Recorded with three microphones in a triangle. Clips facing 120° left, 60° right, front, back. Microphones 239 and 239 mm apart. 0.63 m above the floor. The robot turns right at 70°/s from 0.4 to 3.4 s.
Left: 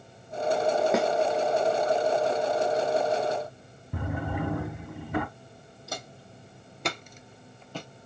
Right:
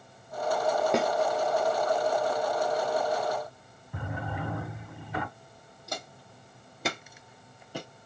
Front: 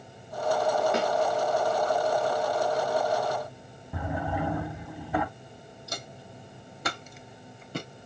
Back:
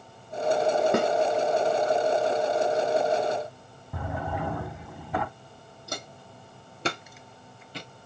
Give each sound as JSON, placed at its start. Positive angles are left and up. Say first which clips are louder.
{"t": 0.9, "sound": "a snare drum", "louder": "left 1 dB, back 4 dB", "azimuth_deg": -155, "distance_m": 0.5}
{"t": 3.9, "sound": "a drawer", "louder": "left 5 dB, front 2 dB", "azimuth_deg": 85, "distance_m": 1.8}
{"t": 5.9, "sound": "footsteps", "louder": "even, back 3 dB", "azimuth_deg": -155, "distance_m": 1.6}